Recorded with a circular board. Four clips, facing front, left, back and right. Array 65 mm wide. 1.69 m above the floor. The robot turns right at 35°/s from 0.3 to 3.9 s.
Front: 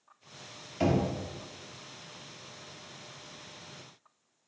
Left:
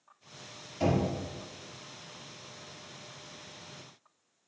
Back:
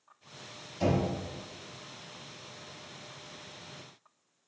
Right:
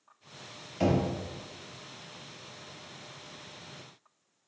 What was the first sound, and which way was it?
Knocking, 35° right.